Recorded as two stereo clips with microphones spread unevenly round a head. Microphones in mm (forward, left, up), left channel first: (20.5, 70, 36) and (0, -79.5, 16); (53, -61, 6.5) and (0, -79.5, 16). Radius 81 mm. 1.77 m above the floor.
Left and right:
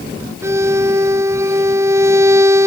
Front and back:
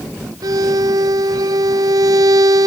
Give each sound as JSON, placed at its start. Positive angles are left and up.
{"t": 0.4, "sound": "a violin", "azimuth_deg": -175}